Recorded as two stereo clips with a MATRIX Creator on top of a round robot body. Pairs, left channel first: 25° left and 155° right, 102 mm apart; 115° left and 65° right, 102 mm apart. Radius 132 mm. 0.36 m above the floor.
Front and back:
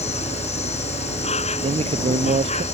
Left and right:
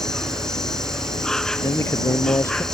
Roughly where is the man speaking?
Behind.